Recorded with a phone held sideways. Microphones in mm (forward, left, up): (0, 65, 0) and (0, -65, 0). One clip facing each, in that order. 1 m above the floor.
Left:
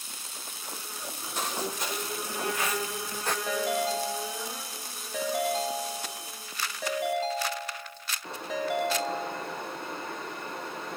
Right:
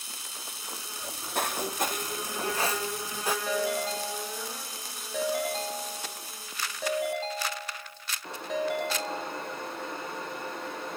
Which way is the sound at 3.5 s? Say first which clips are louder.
Left 3 dB; centre (ahead or behind).